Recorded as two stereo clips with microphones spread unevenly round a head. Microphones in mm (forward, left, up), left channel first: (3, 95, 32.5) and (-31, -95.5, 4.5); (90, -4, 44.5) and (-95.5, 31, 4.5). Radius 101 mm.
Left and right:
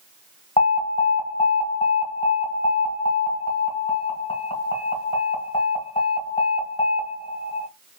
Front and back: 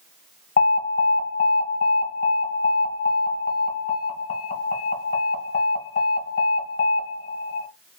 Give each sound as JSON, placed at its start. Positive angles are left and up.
{"t": 0.6, "sound": "an alarm", "azimuth_deg": 15, "distance_m": 1.7}